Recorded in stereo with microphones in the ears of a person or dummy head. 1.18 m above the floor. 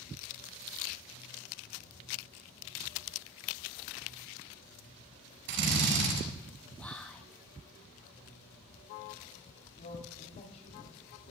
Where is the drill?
70° right (ahead or behind), 6 m.